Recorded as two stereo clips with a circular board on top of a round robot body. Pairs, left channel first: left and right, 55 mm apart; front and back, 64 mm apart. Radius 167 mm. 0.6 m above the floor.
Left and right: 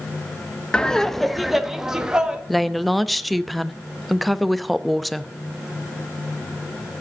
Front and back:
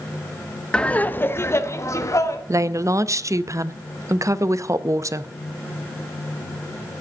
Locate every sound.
0.7 s laughter: 50° left, 1.1 m; by 2.4 s 15° right, 2.0 m
2.5 s a woman speaking: straight behind, 0.8 m